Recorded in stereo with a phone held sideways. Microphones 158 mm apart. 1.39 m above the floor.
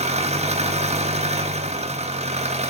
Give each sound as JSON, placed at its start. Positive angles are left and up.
{"t": 0.0, "sound": "an engine running", "side_deg": -45, "distance_m": 1.1}